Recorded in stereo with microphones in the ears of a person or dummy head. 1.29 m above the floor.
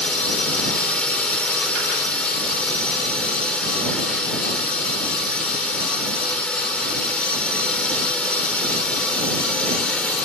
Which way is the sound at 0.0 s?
10° left (ahead or behind).